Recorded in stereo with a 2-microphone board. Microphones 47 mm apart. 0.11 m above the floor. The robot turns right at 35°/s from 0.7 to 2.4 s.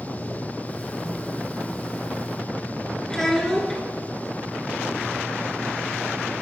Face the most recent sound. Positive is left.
turn(degrees=10)  # may be behind; listen again after turning